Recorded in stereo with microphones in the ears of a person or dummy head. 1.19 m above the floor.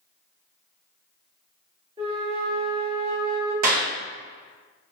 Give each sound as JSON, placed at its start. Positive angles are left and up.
{"t": 2.0, "sound": "a flute", "side_deg": -35, "distance_m": 1.4}
{"t": 3.6, "sound": "a clap", "side_deg": -40, "distance_m": 0.6}